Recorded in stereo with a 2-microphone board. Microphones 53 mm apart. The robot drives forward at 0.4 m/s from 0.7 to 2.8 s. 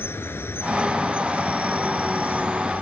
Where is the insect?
50° left (ahead or behind); by 2.8 s 40° left (ahead or behind).